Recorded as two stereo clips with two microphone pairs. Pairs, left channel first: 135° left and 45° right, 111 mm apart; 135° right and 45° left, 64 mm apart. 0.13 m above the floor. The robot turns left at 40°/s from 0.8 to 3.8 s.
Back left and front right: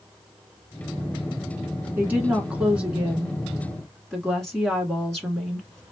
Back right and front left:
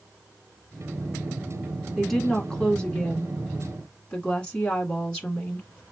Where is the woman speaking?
65° right, 1.3 m; by 5.8 s 140° right, 1.3 m.